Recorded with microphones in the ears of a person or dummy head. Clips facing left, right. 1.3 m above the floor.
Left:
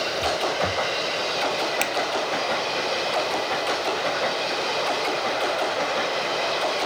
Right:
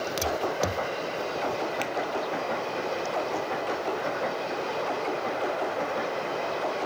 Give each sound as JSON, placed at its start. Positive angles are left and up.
{"t": 1.8, "sound": "a finger snap", "side_deg": 75}